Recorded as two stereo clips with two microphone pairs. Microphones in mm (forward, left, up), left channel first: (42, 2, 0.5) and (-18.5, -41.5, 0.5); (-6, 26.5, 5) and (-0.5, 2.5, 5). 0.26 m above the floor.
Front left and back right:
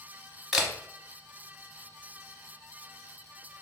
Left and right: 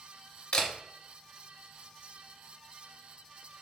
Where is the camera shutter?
135° left, 0.7 m.